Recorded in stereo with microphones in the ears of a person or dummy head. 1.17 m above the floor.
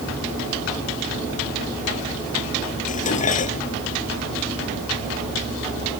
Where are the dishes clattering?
45° left (ahead or behind).